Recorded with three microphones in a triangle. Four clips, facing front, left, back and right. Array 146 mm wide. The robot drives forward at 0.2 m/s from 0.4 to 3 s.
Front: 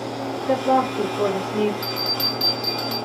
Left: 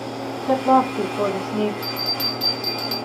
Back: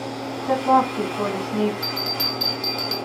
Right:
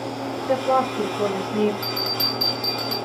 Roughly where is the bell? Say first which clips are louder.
Right 1 dB, front 1 dB; ahead right.